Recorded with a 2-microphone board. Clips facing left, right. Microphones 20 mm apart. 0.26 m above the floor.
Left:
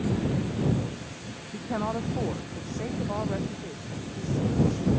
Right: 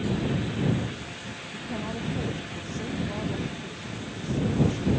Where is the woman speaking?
65° left (ahead or behind); by 4.9 s 50° left (ahead or behind).